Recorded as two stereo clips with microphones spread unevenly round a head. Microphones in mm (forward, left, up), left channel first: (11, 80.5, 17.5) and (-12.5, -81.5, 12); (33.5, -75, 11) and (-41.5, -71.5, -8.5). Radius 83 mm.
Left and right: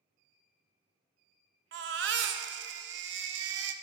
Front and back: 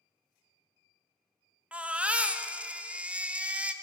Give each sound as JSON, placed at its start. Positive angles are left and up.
{"t": 1.7, "sound": "a baby crying", "azimuth_deg": -100, "distance_m": 0.7}